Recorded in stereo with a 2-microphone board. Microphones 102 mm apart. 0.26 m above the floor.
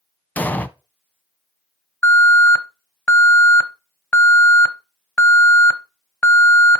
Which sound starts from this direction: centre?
An explosion, at 0.4 s.